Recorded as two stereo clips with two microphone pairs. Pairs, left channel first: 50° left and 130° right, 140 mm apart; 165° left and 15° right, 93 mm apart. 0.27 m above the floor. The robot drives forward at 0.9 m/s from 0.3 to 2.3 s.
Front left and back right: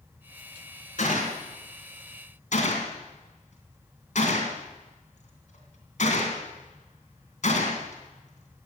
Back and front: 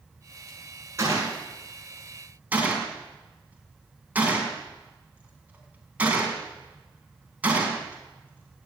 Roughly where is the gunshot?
Ahead left.